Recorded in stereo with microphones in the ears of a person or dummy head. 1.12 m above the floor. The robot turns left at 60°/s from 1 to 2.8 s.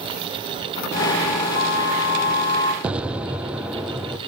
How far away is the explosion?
About 0.9 m.